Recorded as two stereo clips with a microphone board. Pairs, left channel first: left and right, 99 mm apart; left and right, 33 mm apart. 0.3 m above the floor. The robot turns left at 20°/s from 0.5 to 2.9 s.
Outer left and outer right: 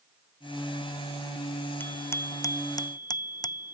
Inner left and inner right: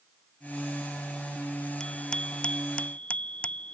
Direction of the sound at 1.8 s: 20° left (ahead or behind).